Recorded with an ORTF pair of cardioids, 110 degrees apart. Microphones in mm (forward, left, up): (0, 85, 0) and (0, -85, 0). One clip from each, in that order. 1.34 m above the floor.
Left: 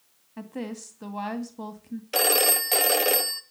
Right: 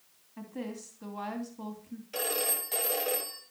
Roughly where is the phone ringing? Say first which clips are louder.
Left 10 dB; ahead left.